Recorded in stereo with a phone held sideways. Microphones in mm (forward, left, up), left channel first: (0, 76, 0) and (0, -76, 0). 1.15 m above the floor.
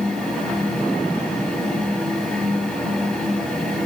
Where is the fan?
5° left (ahead or behind), 3.5 m.